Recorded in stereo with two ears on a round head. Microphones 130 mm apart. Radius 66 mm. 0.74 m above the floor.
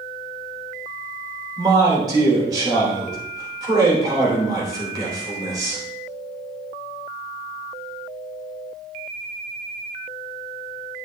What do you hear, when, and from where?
1.6 s a man speaking: 25° right (ahead or behind), 3 m